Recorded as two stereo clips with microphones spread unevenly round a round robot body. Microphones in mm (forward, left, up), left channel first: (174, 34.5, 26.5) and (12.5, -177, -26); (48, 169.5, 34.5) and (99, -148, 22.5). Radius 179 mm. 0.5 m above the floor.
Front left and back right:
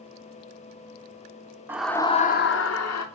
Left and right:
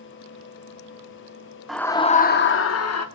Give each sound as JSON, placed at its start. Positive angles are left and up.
{"t": 1.7, "sound": "a scream", "azimuth_deg": -165, "distance_m": 0.8}